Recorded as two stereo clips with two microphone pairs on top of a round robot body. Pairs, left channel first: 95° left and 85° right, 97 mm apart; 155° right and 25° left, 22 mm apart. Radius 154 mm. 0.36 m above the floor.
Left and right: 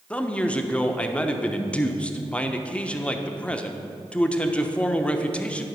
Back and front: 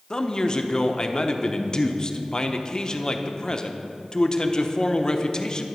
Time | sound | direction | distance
0.1 | a man speaking | 165° left | 1.0 m